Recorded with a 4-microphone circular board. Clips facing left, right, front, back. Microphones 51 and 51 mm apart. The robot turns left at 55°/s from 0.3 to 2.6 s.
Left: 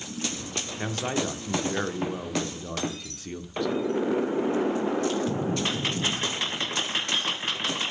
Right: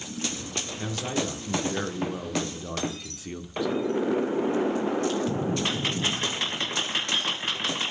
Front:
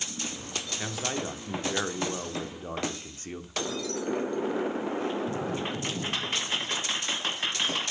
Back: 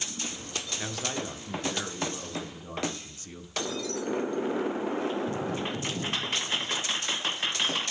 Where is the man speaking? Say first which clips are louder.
Left 1 dB, front 2 dB; 90° left, 1.0 m; by 4.0 s 10° right, 1.0 m.